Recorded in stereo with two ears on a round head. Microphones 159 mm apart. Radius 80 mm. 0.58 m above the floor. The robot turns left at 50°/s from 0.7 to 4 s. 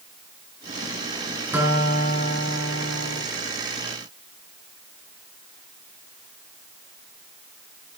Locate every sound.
1.5 s a guitar: 10° right, 6.5 m; by 3.2 s 95° right, 6.5 m